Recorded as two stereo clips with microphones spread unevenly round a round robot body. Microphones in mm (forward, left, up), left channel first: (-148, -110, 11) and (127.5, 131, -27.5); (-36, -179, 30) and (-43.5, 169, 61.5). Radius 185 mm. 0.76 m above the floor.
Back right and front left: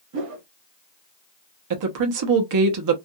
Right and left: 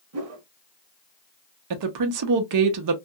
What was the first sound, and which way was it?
A whoosh, 95° left.